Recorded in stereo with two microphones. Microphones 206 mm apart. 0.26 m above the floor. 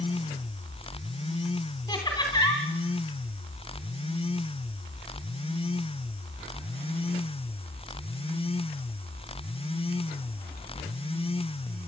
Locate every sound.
1.9 s laughter: 20° left (ahead or behind), 2.5 m